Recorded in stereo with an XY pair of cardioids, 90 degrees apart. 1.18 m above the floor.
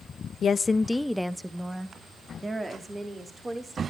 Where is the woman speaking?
55° left, 0.5 m; by 3.8 s 30° right, 3 m.